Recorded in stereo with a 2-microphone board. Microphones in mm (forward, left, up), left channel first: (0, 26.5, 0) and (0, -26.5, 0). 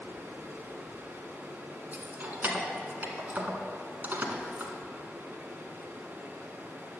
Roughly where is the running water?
Right.